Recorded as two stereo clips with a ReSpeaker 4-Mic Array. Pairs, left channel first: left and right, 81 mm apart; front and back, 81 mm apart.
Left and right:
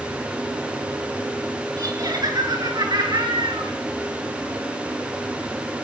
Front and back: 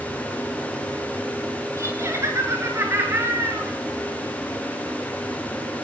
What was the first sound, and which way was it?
Laughter, 130° right.